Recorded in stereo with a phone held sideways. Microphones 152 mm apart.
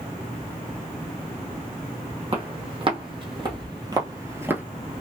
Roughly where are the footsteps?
Right.